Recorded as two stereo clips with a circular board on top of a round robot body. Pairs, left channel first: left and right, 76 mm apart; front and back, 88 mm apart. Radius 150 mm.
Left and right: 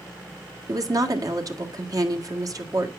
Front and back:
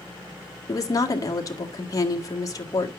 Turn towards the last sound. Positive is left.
turn(degrees=-50)